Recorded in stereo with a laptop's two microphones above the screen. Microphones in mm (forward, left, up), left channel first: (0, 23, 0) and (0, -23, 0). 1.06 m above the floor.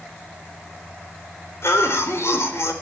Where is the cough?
65° left (ahead or behind), 3.5 m.